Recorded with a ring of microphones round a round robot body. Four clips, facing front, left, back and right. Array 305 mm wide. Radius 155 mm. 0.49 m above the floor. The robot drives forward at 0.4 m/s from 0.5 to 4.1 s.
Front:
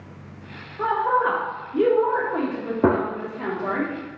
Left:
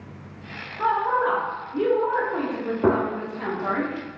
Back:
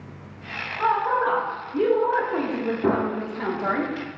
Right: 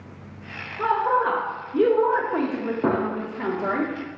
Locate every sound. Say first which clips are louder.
0.8 s a woman speaking: right 1 dB, front 1 dB; 30° right, 1.2 m; by 3.8 s 140° right, 1.1 m
2.8 s a gunshot: left 3 dB, front 4 dB; 10° left, 0.7 m